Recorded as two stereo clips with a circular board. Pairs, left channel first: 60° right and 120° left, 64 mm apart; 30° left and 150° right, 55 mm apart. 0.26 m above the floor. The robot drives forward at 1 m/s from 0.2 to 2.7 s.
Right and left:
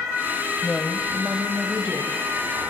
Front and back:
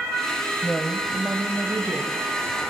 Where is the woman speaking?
15° right, 1.0 m; by 2.1 s 175° right, 1.5 m.